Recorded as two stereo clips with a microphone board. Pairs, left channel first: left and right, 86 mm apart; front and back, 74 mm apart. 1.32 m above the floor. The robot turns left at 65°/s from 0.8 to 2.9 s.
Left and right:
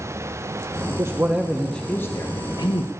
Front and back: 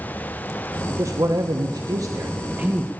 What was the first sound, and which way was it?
A man speaking, 140° right.